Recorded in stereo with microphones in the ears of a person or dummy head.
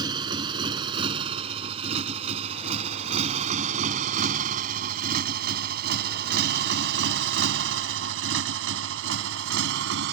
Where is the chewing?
I don't hear chewing.